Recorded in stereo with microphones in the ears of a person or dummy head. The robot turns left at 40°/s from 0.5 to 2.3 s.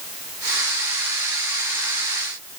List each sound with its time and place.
Only background noise.